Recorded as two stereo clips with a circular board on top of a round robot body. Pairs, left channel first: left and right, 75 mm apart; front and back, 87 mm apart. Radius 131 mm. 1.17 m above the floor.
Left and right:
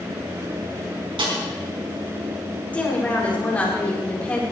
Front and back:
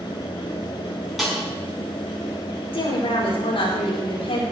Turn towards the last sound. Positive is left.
turn(degrees=20)